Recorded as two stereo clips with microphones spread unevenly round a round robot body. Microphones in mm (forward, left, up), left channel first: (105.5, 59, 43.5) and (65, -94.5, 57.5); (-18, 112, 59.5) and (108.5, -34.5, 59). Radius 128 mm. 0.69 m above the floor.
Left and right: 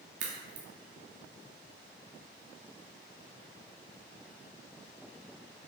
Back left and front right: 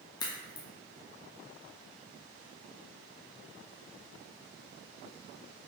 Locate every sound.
0.2 s a crack: 160° right, 0.6 m